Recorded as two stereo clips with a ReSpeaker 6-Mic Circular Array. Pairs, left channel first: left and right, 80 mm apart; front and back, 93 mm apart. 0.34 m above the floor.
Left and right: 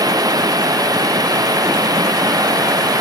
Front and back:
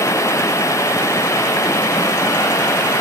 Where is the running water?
55° right.